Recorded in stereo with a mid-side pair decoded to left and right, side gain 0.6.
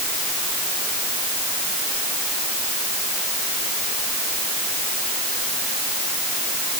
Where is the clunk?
No clunk in this recording.